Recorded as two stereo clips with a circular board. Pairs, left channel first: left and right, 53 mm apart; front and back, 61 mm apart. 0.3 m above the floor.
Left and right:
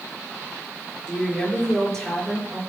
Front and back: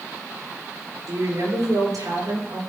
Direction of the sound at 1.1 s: 175° left.